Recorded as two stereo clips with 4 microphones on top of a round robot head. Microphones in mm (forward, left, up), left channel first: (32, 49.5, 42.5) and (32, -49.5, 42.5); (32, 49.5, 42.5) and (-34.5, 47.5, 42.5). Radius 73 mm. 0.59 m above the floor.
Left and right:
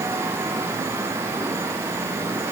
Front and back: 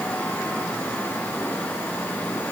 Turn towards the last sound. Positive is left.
No sound to turn to.